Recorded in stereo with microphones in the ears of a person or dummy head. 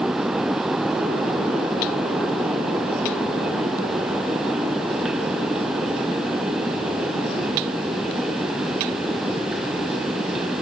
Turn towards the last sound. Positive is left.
No sound to turn to.